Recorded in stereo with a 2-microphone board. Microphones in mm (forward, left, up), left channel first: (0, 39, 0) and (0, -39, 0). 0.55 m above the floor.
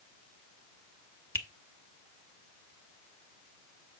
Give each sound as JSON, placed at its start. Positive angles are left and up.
{"t": 1.4, "sound": "a finger snap", "side_deg": 30, "distance_m": 1.2}